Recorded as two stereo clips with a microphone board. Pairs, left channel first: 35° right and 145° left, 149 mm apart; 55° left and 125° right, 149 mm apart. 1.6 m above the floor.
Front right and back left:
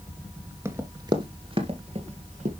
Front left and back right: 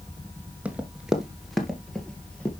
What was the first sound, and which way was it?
Running footsteps, 175° left.